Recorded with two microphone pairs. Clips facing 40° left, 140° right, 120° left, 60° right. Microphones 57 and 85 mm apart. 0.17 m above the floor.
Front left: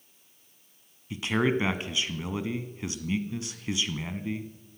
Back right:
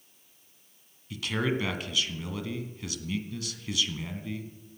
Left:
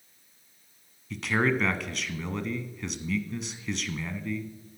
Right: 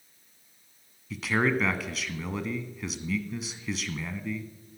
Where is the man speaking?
30° left, 1.3 m.